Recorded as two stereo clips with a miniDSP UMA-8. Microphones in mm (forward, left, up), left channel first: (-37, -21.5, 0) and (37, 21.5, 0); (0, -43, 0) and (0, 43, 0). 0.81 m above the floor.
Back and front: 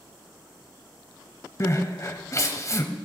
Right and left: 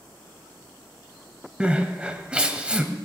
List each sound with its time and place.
1.6 s crying: 165° left, 0.9 m